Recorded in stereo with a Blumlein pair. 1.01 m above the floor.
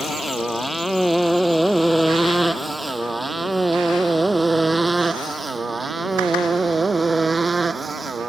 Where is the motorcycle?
5° left; by 8.3 s 10° right.